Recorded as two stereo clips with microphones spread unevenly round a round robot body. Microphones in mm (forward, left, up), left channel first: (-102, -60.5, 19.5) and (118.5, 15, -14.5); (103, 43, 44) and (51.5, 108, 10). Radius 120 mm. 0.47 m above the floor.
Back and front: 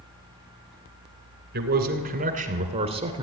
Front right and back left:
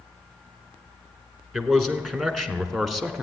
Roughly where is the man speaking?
Ahead left.